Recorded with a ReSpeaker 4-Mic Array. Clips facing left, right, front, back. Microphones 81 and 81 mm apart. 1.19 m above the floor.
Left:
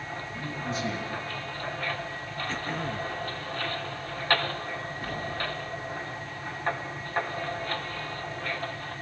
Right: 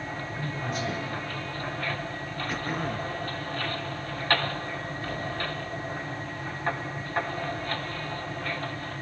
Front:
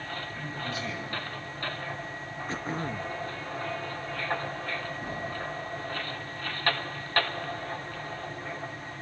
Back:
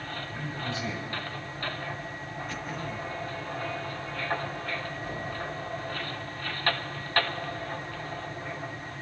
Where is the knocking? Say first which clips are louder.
Right 1 dB, even; 20° left, 7 m.